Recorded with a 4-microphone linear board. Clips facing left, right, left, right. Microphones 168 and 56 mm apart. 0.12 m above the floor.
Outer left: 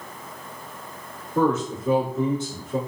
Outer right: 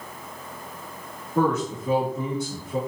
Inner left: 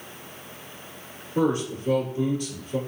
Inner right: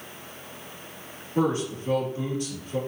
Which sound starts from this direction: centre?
A man speaking, at 1.4 s.